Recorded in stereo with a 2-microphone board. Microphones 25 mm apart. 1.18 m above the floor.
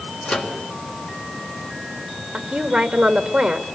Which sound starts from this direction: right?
A woman speaking, at 2.3 s.